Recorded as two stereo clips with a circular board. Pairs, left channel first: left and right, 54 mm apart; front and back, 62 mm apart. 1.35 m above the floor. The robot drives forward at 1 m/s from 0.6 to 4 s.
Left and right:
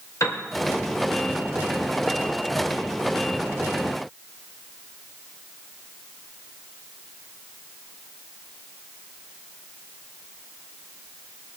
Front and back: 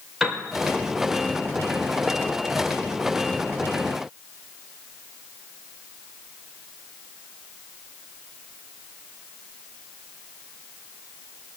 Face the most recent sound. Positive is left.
turn(degrees=145)